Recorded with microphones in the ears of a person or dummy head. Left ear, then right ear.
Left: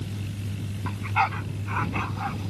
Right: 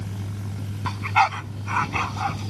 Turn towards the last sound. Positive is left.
turn(degrees=-30)  # may be behind; listen again after turning